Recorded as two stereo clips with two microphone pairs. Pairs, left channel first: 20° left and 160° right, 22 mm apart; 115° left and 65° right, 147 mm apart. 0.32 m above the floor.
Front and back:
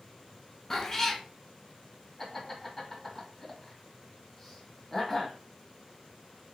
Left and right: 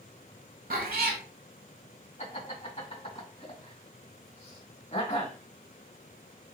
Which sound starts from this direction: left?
Laughter, at 2.2 s.